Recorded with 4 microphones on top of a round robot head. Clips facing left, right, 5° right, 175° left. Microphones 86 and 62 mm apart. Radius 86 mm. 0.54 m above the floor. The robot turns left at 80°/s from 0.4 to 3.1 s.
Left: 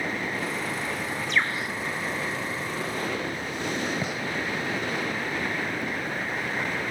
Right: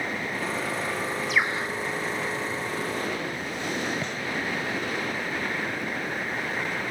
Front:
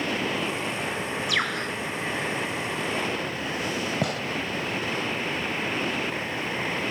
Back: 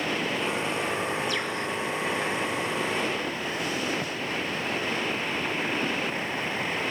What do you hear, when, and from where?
1.3 s a bird: straight ahead; by 1.7 s 35° right
4.0 s a gunshot: 10° left